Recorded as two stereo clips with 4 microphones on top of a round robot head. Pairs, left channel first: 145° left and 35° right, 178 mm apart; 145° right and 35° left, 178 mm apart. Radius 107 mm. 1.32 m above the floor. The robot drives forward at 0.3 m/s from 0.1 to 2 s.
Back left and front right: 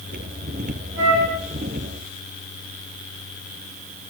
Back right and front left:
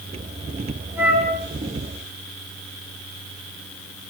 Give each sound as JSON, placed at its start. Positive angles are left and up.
{"t": 1.0, "sound": "a flute", "azimuth_deg": -45, "distance_m": 6.0}